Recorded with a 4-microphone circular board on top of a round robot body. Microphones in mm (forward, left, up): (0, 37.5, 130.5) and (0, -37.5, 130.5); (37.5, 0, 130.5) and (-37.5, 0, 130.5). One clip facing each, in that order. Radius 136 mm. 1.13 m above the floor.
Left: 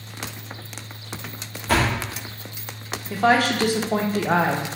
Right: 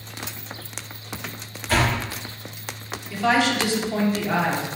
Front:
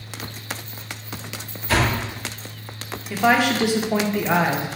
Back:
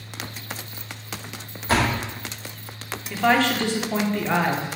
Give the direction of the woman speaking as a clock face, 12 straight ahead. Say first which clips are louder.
Left 2 dB, front 2 dB; 9 o'clock.